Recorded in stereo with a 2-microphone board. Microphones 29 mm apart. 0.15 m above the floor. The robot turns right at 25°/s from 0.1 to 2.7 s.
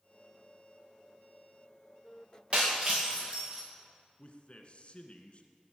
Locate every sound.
2.5 s breaking glass: 40° right (ahead or behind), 4.5 m; by 3.6 s 35° right (ahead or behind), 4.5 m
4.2 s a man speaking: 40° left (ahead or behind), 1.4 m